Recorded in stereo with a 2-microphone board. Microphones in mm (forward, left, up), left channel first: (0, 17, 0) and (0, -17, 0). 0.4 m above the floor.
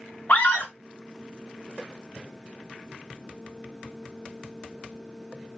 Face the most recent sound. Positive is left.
turn(degrees=55)  # may be behind; listen again after turning